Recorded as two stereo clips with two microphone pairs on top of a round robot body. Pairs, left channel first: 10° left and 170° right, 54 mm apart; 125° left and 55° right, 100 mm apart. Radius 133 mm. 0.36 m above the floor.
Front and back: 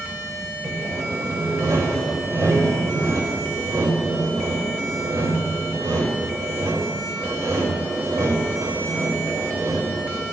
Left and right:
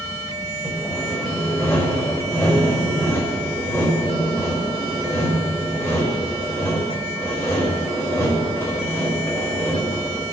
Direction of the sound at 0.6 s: 175° right.